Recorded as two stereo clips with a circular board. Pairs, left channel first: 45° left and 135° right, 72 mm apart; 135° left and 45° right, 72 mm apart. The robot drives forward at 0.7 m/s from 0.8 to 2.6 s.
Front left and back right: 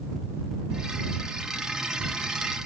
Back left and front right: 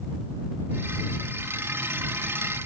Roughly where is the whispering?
I don't hear whispering.